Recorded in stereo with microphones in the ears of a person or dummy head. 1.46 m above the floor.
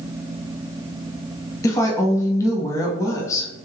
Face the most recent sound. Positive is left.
turn(degrees=20)  # may be behind; listen again after turning